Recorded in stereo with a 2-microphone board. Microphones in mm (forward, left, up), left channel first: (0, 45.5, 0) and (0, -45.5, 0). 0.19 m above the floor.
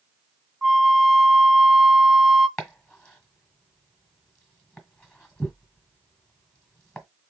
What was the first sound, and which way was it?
A flute, 5° right (ahead or behind).